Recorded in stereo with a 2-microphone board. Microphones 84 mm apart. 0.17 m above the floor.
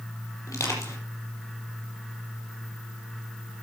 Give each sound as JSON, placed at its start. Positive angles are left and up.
{"t": 0.5, "sound": "crushing", "side_deg": 35, "distance_m": 4.5}